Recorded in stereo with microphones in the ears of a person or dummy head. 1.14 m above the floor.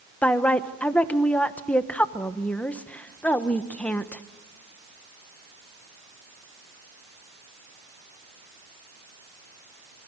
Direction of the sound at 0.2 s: 5° left (ahead or behind).